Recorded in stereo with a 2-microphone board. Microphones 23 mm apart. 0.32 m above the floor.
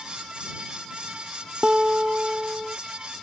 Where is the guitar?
30° right (ahead or behind).